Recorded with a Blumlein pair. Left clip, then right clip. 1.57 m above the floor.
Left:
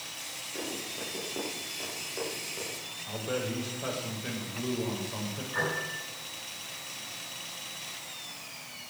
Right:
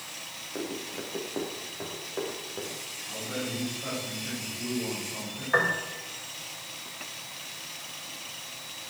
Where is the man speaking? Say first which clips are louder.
Left 2 dB; 25° left, 7.5 m.